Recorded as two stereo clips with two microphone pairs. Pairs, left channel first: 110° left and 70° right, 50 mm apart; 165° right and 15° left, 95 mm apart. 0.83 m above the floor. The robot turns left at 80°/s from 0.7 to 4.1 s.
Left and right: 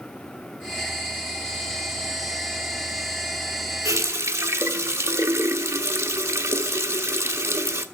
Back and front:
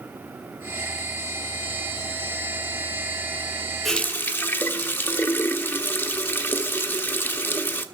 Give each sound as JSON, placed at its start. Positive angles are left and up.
{"t": 3.9, "sound": "a running tap", "azimuth_deg": -80, "distance_m": 1.1}